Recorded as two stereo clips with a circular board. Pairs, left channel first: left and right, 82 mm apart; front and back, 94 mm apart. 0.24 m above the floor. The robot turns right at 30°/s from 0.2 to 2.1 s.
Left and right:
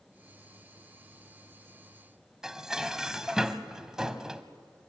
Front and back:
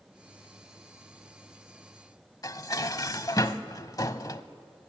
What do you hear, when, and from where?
2.4 s dishes clattering: 10° right, 0.8 m